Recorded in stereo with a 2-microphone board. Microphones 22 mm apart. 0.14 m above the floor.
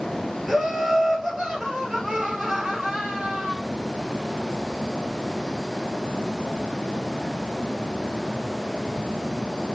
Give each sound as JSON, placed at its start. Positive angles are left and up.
{"t": 0.5, "sound": "laughter", "side_deg": -10, "distance_m": 2.5}